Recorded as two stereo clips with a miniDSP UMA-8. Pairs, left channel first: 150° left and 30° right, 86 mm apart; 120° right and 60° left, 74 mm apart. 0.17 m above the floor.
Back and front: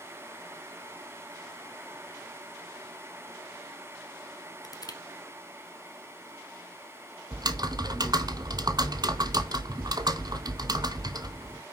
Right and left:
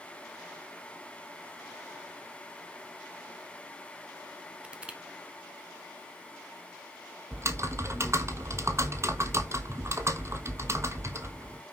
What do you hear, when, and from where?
4.6 s crushing: 130° left, 1.2 m
7.3 s typing on a keyboard: 10° left, 1.0 m